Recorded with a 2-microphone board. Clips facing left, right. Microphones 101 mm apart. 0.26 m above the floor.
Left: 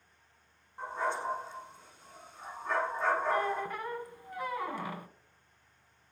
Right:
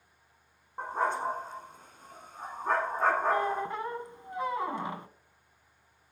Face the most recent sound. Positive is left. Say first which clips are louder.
# right 2 dB
turn(degrees=-25)  # may be behind; listen again after turning